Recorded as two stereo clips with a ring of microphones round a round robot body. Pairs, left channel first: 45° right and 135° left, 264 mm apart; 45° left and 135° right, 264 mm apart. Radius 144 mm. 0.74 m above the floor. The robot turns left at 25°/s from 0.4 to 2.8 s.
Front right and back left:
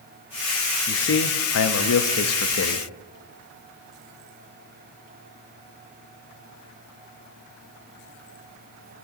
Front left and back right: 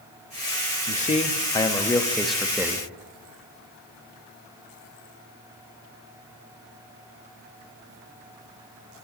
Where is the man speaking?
10° right, 0.9 m; by 2.9 s 60° right, 0.9 m.